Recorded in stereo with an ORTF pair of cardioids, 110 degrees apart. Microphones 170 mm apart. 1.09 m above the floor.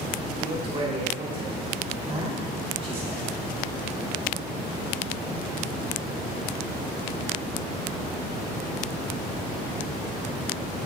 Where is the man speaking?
35° right, 3 m.